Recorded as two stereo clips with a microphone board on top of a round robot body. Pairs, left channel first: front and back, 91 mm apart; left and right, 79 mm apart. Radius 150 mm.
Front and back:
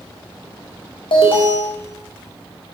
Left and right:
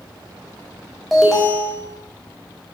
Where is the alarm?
Straight ahead, 4.5 m.